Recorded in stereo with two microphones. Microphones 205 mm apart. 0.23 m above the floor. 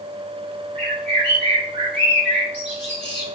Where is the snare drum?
I don't hear a snare drum.